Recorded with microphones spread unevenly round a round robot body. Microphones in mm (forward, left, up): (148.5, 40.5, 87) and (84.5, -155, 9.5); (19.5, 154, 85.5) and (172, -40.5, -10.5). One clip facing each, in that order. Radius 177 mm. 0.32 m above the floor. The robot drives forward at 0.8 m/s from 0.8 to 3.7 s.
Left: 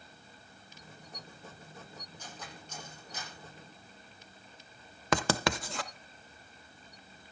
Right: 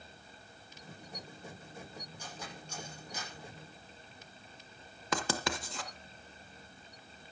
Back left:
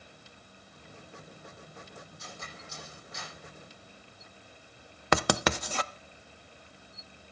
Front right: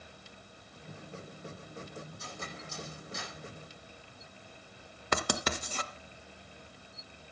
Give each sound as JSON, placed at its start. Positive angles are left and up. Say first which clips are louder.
{"t": 2.2, "sound": "cutlery clinking", "louder": "right 1 dB, front right 3 dB", "azimuth_deg": -30, "distance_m": 9.5}
{"t": 5.1, "sound": "writing", "louder": "left 5 dB, back left 6 dB", "azimuth_deg": 100, "distance_m": 0.6}